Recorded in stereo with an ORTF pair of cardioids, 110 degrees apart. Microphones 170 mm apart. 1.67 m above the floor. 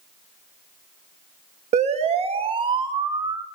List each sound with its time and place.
1.7 s a siren: 40° right, 2.5 m; by 3.5 s 20° right, 2.5 m